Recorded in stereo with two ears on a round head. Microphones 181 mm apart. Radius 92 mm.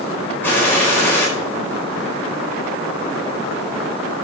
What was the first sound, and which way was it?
A gunshot, 10° left (ahead or behind).